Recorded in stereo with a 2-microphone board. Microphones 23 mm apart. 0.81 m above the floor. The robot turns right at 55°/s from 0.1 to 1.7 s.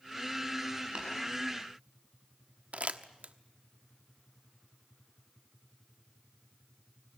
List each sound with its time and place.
0.9 s tapping: 50° right (ahead or behind), 8 m; by 1.1 s 55° right (ahead or behind), 8 m
2.7 s crumpling: 75° right (ahead or behind), 1.1 m